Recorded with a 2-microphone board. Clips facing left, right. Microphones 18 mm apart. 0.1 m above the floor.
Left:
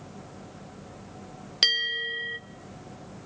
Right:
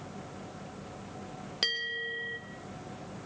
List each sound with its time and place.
1.6 s a bell: 60° left (ahead or behind), 1.9 m